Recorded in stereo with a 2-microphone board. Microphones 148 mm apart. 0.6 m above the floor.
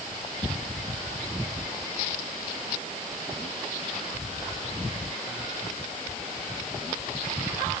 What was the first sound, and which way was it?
Only background noise.